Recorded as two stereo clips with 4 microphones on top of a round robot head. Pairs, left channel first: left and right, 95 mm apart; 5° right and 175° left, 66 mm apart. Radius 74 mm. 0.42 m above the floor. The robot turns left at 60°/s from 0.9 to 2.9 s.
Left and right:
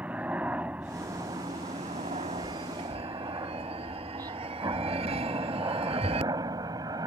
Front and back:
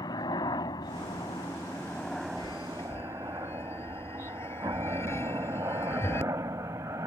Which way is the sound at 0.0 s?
15° right.